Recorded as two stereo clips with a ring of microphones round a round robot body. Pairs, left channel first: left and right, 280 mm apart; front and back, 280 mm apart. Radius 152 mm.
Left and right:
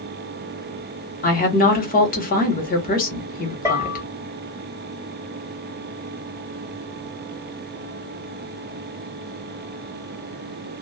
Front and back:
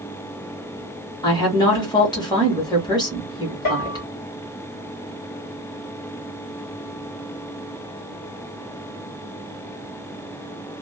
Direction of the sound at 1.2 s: 65° left.